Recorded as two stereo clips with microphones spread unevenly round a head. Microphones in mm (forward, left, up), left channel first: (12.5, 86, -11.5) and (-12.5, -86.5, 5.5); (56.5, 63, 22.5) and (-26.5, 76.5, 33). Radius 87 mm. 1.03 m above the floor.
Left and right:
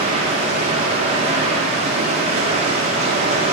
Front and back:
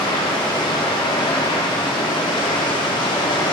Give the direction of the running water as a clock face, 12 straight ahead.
1 o'clock.